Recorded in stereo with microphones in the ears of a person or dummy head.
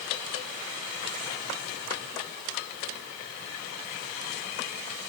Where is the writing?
I don't hear writing.